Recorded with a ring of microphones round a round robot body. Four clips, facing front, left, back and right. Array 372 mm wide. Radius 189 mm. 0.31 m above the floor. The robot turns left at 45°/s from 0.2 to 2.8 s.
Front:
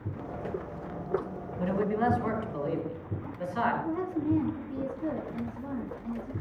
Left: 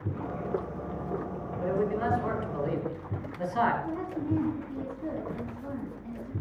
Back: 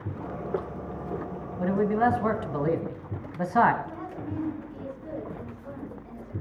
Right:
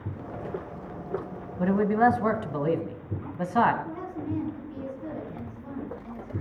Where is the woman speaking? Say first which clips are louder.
Left 2 dB, front 7 dB; 15° left, 9 m.